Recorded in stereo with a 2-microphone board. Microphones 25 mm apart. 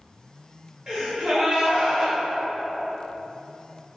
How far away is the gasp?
About 1.1 m.